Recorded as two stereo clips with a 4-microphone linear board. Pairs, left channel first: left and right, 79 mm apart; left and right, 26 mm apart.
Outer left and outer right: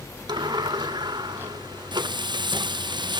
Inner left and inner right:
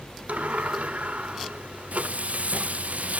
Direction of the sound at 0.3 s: 75° right (ahead or behind).